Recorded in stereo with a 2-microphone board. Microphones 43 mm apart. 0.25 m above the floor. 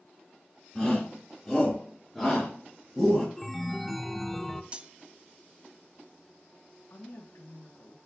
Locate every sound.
0.8 s a shout: 5° left (ahead or behind), 3.5 m; by 3.3 s centre (ahead or behind), 2 m
3.4 s a chime: 5° left (ahead or behind), 0.6 m
4.7 s cutlery clinking: 25° right (ahead or behind), 0.6 m
6.9 s a woman speaking: 60° left (ahead or behind), 3 m